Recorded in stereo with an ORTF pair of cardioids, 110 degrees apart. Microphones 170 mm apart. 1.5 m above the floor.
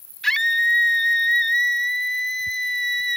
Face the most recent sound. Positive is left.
turn(degrees=5)